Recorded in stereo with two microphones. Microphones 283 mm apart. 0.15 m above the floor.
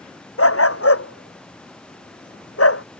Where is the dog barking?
55° left (ahead or behind).